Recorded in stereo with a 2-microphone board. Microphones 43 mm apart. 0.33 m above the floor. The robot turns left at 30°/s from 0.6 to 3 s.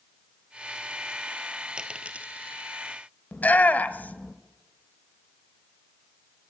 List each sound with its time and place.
1.8 s a dropped coin: 20° right (ahead or behind), 1.4 m; by 2.6 s 45° right (ahead or behind), 1.4 m
3.3 s a shout: 40° left (ahead or behind), 1.1 m